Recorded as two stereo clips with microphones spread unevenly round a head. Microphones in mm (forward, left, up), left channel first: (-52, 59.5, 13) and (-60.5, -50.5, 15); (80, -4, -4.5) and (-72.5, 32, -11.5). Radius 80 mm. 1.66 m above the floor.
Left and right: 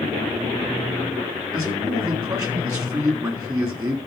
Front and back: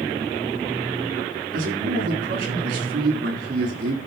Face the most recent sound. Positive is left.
turn(degrees=-155)